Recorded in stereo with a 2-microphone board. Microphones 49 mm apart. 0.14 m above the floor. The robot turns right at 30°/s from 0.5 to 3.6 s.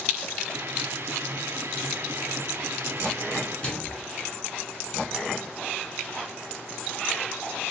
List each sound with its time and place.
3.6 s a microwave: 25° left (ahead or behind), 1.4 m